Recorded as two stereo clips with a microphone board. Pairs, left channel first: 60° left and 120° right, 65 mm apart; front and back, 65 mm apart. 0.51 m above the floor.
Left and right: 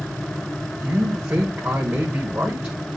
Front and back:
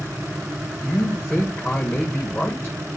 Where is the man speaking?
65° right, 1.3 m.